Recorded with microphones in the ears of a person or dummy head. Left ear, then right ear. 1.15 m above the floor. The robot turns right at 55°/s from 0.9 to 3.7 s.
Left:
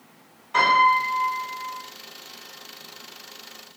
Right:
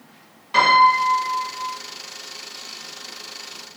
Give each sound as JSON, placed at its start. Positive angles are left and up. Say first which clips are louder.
{"t": 0.5, "sound": "a piano", "louder": "right 3 dB", "azimuth_deg": -45, "distance_m": 1.5}